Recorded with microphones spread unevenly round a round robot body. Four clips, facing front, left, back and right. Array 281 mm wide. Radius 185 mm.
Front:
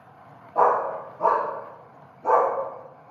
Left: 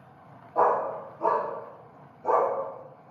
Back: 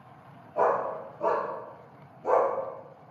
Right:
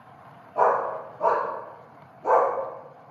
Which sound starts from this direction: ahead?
A dog barking, at 0.6 s.